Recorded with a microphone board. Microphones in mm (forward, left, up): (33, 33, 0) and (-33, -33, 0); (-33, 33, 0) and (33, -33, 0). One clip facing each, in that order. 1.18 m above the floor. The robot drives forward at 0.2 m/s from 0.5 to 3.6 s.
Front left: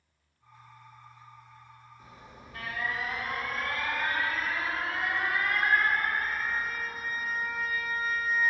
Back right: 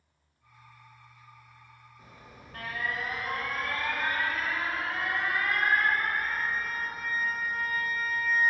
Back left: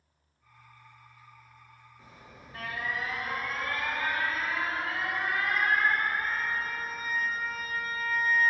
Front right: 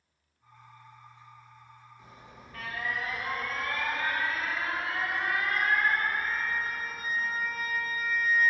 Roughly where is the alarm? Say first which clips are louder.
Even, back left 1 dB; behind.